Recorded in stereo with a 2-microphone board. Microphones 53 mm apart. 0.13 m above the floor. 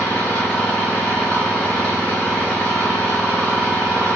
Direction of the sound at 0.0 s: 30° left (ahead or behind).